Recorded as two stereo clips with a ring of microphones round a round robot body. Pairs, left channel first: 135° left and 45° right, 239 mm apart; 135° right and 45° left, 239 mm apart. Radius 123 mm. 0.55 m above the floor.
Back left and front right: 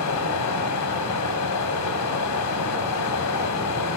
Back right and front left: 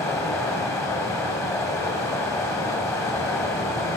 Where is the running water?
145° left, 2 m.